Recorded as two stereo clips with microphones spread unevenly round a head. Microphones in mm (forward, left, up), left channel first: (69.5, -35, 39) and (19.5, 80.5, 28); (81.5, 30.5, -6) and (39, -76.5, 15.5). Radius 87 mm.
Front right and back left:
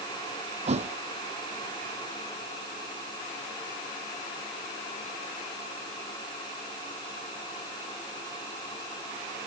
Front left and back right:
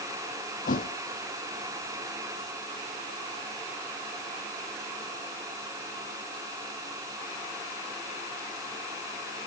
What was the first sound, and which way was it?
A thud, 80° left.